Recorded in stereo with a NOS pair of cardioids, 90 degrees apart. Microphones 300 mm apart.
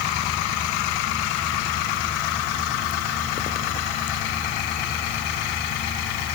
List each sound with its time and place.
Only background noise.